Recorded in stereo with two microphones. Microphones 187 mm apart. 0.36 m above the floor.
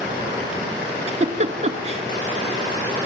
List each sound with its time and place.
1.1 s a giggle: 35° right (ahead or behind), 2 m